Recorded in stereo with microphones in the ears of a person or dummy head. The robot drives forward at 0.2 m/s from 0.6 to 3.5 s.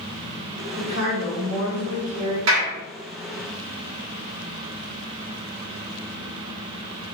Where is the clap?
80° right, 1.7 m.